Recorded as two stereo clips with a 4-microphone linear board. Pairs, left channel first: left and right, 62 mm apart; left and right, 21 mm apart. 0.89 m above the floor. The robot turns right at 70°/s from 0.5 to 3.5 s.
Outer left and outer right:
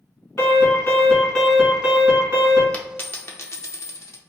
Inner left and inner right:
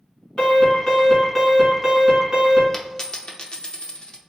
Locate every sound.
0.4 s an alarm: 105° left, 1.8 m; by 2.6 s 105° right, 1.8 m
2.7 s a dropped coin: 20° left (ahead or behind), 0.6 m; by 4.2 s 50° left (ahead or behind), 0.6 m